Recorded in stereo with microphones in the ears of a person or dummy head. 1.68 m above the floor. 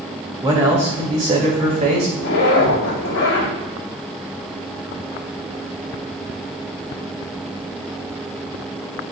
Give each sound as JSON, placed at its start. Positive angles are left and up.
{"t": 0.4, "sound": "a man speaking", "side_deg": -20, "distance_m": 2.5}
{"t": 2.2, "sound": "a zipper", "side_deg": 75, "distance_m": 3.5}